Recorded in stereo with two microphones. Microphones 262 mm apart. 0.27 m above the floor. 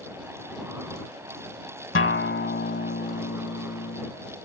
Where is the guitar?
50° left (ahead or behind).